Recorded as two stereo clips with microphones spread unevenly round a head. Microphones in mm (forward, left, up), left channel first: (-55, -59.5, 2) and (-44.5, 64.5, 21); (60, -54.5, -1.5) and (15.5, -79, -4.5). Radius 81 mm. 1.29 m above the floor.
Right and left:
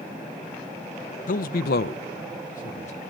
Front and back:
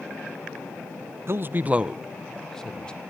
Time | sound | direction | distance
1.3 | a man speaking | 110° right | 0.6 m